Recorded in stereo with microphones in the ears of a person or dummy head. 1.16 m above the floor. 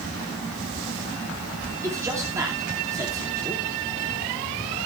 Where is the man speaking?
15° right (ahead or behind), 2.5 m.